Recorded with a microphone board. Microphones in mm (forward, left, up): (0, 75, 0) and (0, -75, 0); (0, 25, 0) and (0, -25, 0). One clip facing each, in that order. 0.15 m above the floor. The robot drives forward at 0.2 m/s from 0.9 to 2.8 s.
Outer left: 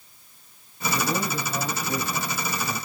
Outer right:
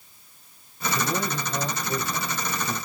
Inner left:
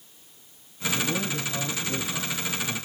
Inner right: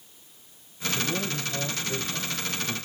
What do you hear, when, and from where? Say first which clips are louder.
0.9 s a man speaking: outer left 1 dB, inner left 1 dB; 15° left (ahead or behind), 1.1 m